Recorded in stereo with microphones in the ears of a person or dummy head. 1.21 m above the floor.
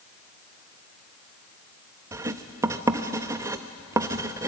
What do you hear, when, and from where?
2.1 s writing: 15° right (ahead or behind), 0.6 m